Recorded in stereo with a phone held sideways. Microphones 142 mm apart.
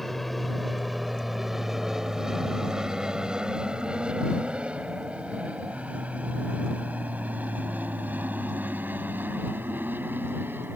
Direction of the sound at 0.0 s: Centre (ahead or behind).